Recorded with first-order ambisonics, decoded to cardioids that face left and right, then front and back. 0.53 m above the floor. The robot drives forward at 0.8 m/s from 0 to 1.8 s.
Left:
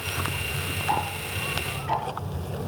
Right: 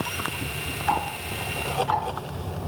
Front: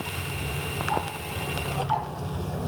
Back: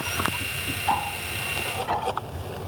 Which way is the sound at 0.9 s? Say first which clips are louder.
Right 2 dB, back 4 dB; 140° right.